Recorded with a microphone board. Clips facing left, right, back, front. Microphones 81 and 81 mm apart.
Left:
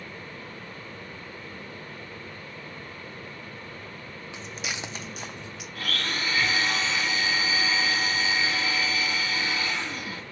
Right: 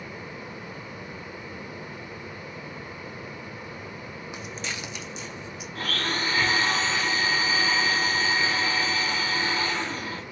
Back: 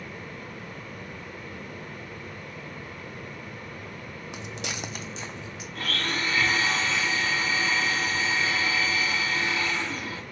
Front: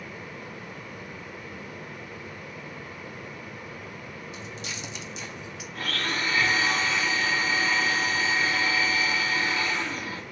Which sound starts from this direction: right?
A blender, at 5.8 s.